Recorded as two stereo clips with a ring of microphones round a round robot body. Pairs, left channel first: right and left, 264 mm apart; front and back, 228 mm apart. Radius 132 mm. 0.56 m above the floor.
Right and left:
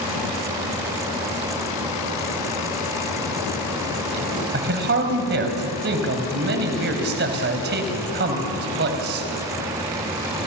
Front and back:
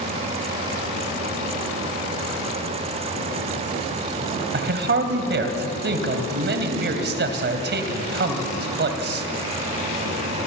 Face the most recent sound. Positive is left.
turn(degrees=140)